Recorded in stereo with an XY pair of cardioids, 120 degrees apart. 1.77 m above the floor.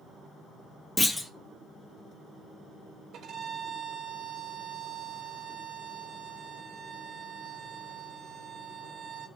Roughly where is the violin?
Ahead right.